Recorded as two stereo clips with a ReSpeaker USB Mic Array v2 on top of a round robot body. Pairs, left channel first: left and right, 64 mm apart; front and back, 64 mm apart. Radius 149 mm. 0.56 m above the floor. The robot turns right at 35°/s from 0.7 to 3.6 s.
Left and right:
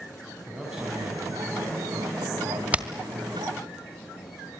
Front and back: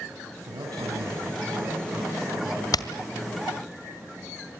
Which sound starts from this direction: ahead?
Hammering, at 2.7 s.